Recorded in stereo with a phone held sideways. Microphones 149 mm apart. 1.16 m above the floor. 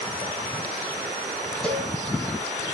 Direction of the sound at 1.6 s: 5° left (ahead or behind).